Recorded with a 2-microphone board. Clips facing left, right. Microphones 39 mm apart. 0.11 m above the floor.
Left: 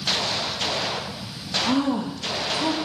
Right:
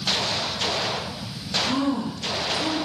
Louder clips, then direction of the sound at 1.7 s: Left 2 dB; 65° left (ahead or behind).